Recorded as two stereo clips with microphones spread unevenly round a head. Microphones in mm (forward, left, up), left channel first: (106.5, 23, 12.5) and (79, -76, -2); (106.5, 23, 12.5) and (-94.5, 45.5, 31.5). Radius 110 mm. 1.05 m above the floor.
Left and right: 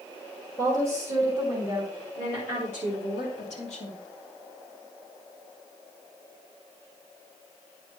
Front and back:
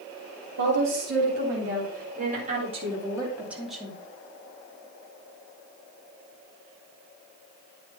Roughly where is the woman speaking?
Behind left.